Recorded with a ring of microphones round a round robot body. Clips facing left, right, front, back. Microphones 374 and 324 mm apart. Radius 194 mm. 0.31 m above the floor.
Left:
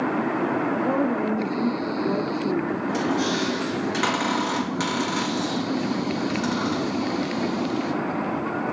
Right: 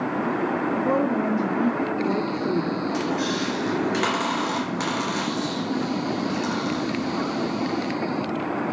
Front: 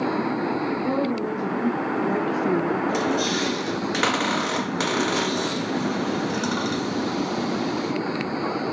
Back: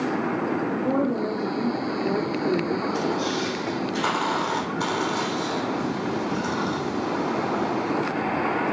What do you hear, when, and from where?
0.7 s a woman speaking: 85° right, 1.3 m; by 2.8 s 40° left, 1.0 m
2.9 s a squeak: 5° left, 2 m